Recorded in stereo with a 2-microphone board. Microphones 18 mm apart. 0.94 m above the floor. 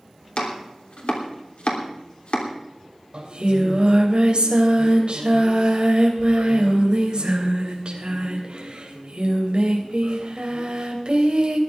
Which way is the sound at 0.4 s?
65° left (ahead or behind).